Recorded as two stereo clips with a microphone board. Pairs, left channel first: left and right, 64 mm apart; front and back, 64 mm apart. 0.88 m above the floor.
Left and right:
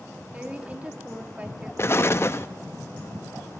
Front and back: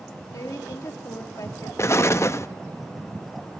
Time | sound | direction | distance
0.3 | a woman speaking | 20° right | 2 m
1.8 | an explosion | 45° left | 0.7 m